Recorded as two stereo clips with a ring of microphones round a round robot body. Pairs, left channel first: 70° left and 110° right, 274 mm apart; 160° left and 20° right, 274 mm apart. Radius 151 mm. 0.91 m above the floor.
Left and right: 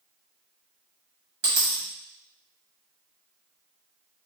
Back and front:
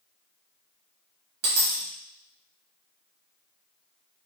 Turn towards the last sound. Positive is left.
turn(degrees=-60)